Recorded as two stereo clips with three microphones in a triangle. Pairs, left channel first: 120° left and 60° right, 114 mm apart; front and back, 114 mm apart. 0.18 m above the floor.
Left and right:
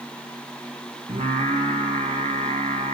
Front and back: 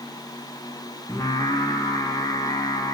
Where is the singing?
60° right, 4 m.